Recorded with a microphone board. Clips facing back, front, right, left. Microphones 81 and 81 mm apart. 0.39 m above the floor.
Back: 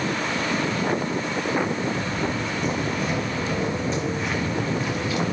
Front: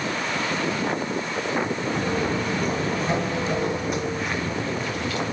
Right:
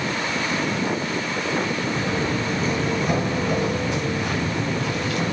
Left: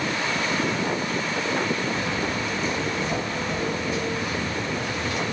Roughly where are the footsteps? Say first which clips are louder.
Front 2 dB, right 3 dB; ahead right.